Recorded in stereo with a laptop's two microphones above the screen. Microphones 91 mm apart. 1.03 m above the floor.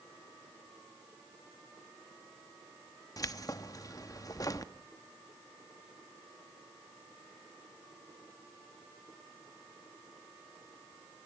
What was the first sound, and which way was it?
Keys jangling, 40° left (ahead or behind).